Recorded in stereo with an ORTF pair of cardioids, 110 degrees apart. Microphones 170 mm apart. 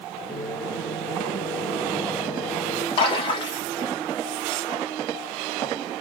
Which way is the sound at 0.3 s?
Straight ahead.